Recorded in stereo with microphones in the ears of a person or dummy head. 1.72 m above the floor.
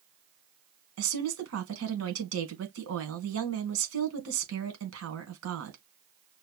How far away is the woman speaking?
About 1.6 m.